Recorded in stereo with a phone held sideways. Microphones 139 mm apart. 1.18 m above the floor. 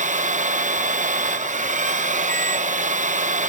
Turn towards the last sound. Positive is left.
turn(degrees=-60)  # may be behind; listen again after turning